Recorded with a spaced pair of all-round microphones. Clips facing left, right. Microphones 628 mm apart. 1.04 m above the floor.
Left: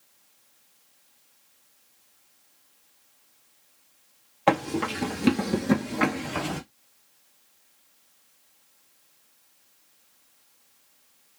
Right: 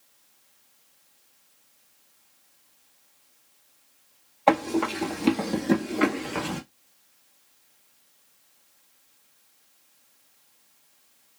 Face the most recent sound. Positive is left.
turn(degrees=5)  # may be behind; listen again after turning